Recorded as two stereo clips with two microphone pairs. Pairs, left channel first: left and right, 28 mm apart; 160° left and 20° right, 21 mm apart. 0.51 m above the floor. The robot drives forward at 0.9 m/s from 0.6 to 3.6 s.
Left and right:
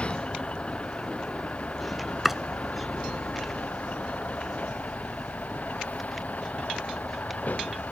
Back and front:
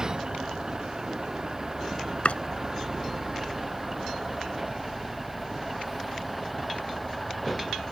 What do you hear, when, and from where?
0.0 s a vehicle: 45° left; by 7.9 s 70° left
2.2 s chopping: 170° right